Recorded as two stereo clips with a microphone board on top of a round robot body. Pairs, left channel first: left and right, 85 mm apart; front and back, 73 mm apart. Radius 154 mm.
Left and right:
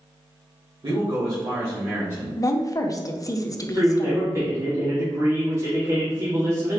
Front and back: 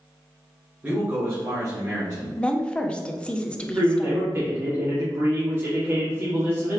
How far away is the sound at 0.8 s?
About 1.8 m.